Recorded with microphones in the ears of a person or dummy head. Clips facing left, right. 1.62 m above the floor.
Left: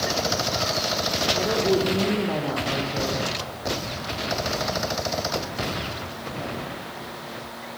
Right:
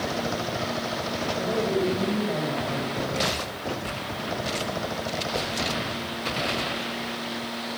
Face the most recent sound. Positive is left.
turn(degrees=85)